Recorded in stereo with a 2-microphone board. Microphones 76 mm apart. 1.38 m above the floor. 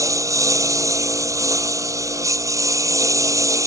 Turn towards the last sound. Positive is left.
turn(degrees=-45)  # may be behind; listen again after turning